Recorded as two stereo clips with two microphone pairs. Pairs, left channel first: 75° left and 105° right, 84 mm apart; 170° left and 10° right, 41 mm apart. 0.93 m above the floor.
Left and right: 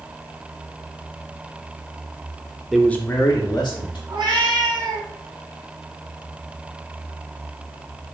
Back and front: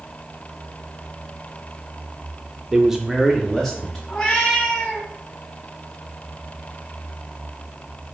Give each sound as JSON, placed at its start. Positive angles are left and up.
{"t": 2.7, "sound": "a man speaking", "azimuth_deg": -40, "distance_m": 0.5}
{"t": 4.1, "sound": "a cat meowing", "azimuth_deg": -135, "distance_m": 1.8}